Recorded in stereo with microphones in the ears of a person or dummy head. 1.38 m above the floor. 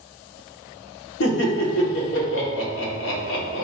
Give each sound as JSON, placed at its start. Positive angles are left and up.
{"t": 1.2, "sound": "laughter", "side_deg": 75, "distance_m": 1.5}